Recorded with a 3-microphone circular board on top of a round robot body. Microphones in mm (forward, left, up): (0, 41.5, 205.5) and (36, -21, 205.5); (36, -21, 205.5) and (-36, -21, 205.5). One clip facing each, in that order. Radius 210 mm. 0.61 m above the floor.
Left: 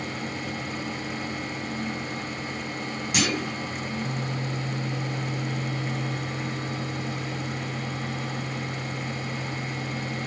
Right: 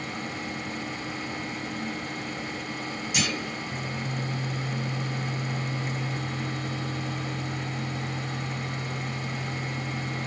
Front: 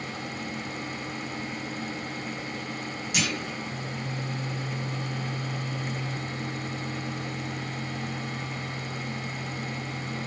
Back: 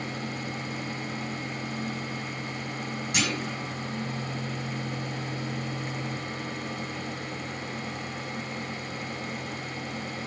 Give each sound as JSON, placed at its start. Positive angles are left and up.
{"t": 3.1, "sound": "a clunk", "azimuth_deg": 130, "distance_m": 2.0}